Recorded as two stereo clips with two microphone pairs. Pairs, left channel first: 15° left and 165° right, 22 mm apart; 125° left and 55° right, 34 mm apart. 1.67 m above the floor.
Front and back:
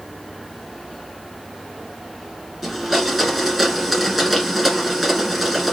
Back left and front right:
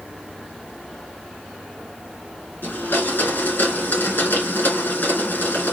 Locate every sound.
2.6 s a blender: 120° left, 2.5 m